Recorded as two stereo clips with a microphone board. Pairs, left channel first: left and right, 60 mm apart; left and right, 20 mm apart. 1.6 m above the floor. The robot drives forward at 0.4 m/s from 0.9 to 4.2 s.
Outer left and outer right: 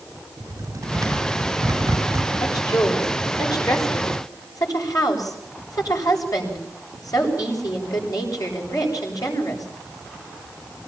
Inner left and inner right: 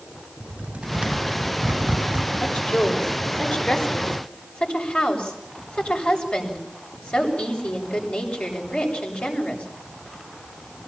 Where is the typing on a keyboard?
70° right (ahead or behind), 3.5 m; by 2.3 s 65° right (ahead or behind), 4 m.